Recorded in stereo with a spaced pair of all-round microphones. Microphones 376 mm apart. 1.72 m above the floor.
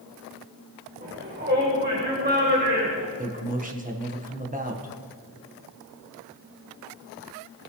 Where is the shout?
25° right (ahead or behind), 1.7 m.